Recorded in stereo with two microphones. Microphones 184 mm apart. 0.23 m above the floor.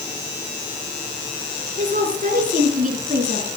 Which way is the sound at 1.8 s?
40° right (ahead or behind).